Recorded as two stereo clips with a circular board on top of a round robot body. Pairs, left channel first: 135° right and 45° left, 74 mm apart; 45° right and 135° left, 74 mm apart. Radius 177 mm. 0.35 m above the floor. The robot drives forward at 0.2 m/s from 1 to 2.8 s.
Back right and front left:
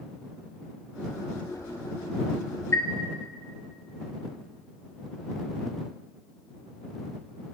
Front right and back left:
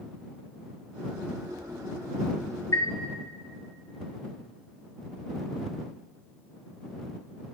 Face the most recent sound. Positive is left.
turn(degrees=-90)